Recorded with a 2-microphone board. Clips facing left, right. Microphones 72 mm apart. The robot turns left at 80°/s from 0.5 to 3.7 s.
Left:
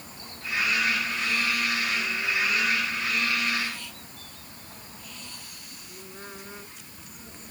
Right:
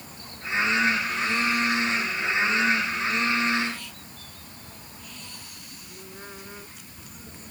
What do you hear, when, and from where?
Only background noise.